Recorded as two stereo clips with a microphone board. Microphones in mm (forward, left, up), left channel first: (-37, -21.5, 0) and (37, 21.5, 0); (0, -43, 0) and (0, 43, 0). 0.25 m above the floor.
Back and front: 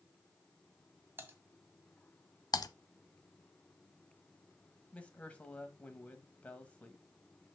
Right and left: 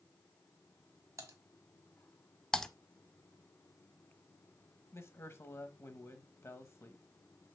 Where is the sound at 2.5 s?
170° right, 0.6 m.